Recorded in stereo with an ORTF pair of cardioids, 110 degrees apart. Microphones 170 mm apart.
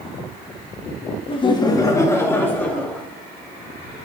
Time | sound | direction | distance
1.3 | laughter | 35° left | 1.4 m